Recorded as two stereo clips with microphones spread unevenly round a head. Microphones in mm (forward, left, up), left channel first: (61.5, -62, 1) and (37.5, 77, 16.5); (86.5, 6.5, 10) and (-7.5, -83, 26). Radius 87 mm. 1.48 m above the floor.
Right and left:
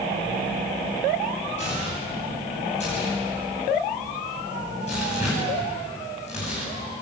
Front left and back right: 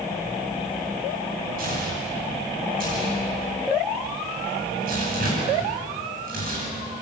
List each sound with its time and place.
1.6 s tearing paper: 135° right, 9.5 m